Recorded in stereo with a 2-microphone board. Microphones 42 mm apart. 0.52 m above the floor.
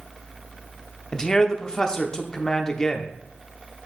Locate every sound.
1.1 s a man speaking: 15° left (ahead or behind), 0.8 m